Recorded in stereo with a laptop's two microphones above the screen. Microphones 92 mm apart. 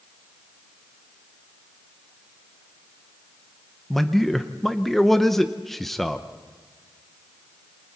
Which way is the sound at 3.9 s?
5° left (ahead or behind).